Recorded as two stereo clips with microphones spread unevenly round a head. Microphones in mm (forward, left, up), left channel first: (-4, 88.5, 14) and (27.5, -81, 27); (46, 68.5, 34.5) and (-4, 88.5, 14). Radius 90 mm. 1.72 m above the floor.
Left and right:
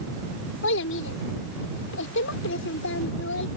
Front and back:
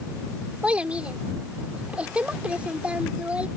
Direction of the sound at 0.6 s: 85° left.